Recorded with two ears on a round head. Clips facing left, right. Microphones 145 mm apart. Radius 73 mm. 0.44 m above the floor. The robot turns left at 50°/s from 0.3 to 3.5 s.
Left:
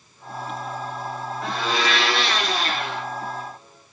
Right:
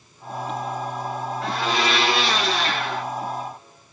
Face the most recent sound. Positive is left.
turn(degrees=-105)